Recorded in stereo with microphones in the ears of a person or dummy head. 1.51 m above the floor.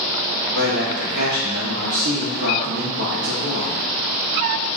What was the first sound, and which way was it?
A man speaking, 65° right (ahead or behind).